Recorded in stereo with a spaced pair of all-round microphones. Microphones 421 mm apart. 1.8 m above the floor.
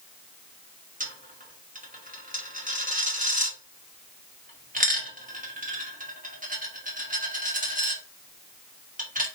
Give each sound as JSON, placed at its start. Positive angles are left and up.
{"t": 1.0, "sound": "a dropped coin", "side_deg": -20, "distance_m": 1.3}